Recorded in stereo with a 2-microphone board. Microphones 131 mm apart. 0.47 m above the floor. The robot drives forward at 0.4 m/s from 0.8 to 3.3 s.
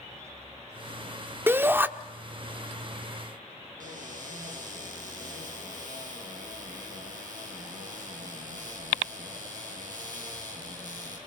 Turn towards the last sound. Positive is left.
turn(degrees=-80)